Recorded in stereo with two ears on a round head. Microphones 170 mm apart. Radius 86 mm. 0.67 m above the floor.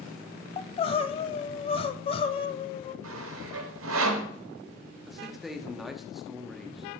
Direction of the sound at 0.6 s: 30° left (ahead or behind).